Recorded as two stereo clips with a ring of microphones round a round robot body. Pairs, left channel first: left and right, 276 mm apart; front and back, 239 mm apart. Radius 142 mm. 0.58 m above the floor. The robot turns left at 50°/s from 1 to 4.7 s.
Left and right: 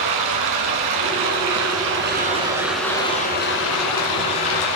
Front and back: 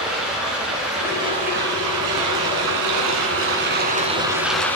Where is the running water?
90° right, 1.5 m; by 4.8 s 85° left, 1.5 m.